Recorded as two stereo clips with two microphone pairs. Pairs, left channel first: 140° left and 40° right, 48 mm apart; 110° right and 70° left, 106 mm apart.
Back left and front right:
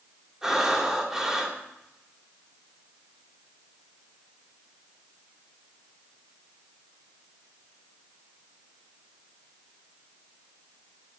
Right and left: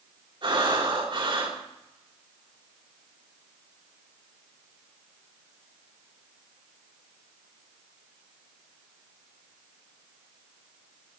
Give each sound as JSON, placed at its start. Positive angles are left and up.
{"t": 0.4, "sound": "breathing", "azimuth_deg": 35, "distance_m": 3.0}